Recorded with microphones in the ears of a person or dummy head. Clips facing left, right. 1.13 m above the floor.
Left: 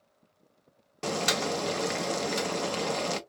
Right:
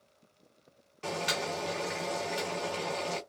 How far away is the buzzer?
No buzzer in this recording.